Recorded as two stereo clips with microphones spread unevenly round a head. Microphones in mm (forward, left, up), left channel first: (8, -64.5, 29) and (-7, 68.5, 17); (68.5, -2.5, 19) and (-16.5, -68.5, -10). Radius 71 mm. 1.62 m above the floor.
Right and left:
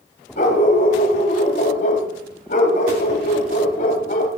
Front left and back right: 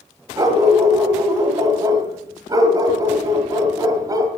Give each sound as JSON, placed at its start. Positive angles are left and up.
{"t": 0.4, "sound": "a dog barking", "azimuth_deg": -80, "distance_m": 2.0}